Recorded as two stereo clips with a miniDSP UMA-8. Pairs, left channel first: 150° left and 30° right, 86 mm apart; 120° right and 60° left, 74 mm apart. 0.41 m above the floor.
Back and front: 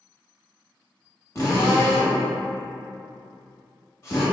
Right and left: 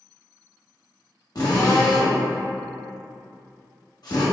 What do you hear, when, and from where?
1.4 s a drill: 155° right, 0.7 m